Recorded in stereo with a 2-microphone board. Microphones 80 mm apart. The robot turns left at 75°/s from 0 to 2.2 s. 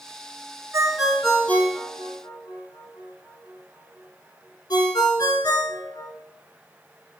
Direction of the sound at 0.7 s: 40° right (ahead or behind).